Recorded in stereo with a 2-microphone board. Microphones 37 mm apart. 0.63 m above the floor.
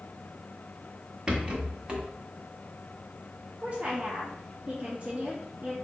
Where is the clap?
I don't hear a clap.